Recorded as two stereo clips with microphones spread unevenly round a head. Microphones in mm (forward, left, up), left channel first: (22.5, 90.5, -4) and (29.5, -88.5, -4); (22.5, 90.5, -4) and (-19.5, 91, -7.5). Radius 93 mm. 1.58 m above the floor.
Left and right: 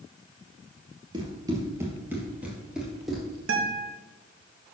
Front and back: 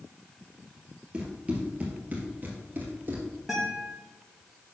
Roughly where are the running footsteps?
Behind right.